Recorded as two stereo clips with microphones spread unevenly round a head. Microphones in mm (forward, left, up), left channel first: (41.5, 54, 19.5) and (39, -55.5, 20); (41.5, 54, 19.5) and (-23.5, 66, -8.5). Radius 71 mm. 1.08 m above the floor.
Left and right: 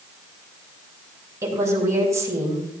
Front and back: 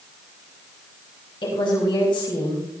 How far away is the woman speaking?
About 5 m.